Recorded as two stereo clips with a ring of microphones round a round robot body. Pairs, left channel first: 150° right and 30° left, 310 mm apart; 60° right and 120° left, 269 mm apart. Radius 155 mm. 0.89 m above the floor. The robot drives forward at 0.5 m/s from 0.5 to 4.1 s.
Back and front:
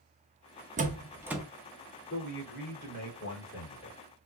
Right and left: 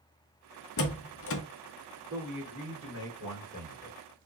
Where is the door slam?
35° right, 0.8 m; by 1.4 s 60° right, 0.6 m.